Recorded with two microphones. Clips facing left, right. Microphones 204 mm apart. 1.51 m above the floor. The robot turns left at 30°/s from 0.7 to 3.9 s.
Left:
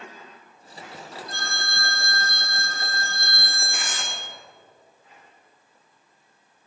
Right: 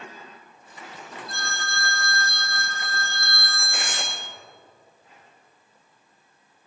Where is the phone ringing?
90° left, 2.5 m; by 4.2 s 15° left, 2.5 m.